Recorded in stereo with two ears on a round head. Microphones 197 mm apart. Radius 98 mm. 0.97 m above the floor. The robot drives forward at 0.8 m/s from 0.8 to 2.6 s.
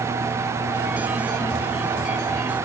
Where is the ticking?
No ticking in this recording.